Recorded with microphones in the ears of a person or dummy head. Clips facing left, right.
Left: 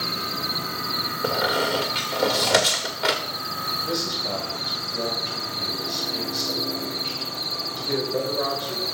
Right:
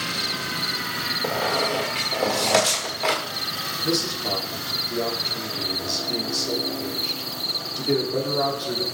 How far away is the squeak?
About 1.5 m.